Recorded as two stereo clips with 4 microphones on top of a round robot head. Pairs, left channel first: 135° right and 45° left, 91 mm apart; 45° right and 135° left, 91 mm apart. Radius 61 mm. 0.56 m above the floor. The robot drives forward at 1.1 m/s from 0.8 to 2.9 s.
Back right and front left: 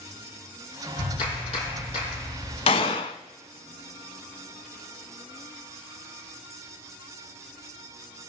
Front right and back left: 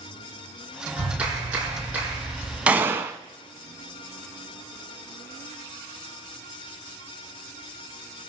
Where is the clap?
150° right, 6.5 m; by 2.6 s 155° right, 8 m.